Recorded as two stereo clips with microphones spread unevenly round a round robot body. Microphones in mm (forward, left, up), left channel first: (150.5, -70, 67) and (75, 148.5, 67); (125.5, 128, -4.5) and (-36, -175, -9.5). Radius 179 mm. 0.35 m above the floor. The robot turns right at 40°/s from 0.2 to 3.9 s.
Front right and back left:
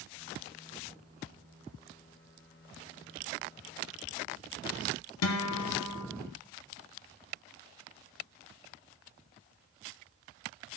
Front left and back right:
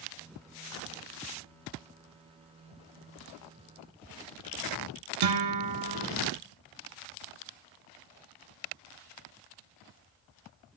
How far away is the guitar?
About 1.3 m.